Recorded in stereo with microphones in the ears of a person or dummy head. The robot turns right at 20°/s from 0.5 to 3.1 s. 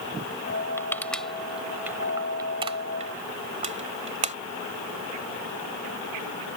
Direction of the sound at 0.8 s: 5° left (ahead or behind).